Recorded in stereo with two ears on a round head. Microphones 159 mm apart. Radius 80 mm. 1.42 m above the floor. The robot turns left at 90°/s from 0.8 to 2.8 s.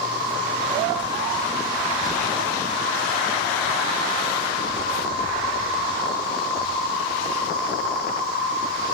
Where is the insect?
65° right, 2.5 m; by 8.9 s 115° left, 2.5 m.